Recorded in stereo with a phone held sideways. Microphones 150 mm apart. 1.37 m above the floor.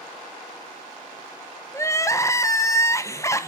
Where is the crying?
20° left (ahead or behind), 0.7 m.